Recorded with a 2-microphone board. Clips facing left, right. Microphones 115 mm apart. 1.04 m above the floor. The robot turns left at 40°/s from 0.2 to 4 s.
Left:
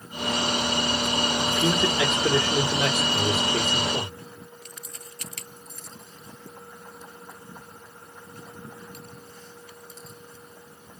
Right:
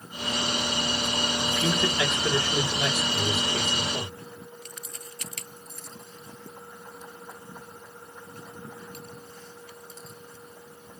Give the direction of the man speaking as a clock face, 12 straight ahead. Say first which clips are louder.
Left 2 dB; 6 o'clock.